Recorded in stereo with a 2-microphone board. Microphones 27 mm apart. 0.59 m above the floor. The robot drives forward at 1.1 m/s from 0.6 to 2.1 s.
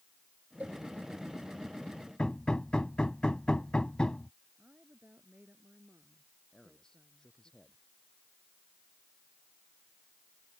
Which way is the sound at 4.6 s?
80° right.